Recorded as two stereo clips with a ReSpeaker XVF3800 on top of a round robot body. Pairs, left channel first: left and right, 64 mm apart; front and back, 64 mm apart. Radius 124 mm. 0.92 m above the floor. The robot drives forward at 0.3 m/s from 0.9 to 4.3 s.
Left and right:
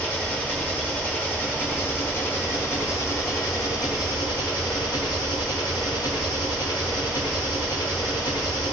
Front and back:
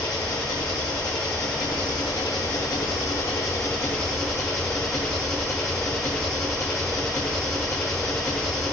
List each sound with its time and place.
0.0 s an engine running: 25° left, 1.2 m; by 8.7 s 85° left, 0.6 m